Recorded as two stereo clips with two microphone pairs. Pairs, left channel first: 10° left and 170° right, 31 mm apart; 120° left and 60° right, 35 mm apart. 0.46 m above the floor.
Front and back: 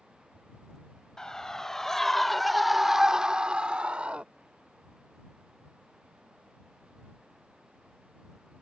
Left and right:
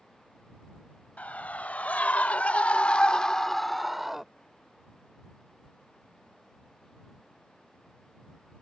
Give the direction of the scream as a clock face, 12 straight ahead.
9 o'clock.